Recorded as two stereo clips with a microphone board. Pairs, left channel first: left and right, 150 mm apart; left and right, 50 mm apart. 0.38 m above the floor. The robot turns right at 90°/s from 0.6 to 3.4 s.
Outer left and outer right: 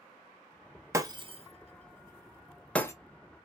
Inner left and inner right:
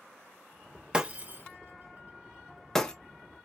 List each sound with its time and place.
0.9 s breaking glass: 20° right (ahead or behind), 0.7 m; by 2.9 s 20° left (ahead or behind), 0.7 m